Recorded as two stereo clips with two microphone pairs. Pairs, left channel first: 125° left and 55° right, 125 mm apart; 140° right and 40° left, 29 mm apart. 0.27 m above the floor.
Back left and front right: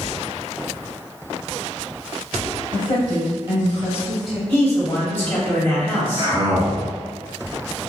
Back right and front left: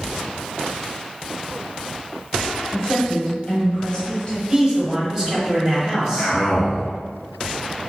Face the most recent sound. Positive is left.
turn(degrees=-90)